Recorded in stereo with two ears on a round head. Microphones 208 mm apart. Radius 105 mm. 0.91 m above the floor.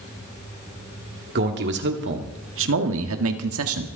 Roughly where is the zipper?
No zipper in this recording.